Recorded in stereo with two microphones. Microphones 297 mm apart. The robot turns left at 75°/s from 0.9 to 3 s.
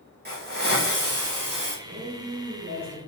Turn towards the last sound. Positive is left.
turn(degrees=-160)